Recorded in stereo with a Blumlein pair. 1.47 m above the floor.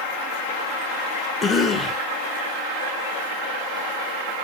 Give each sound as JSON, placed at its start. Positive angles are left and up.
{"t": 1.4, "sound": "a cough", "azimuth_deg": 15, "distance_m": 0.8}